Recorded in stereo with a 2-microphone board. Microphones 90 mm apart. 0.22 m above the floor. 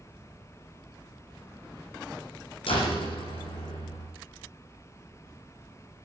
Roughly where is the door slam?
Left.